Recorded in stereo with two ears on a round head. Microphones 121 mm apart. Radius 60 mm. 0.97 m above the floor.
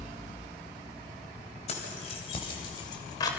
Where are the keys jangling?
50° left (ahead or behind), 4.5 m; by 3.3 s 30° left (ahead or behind), 3 m.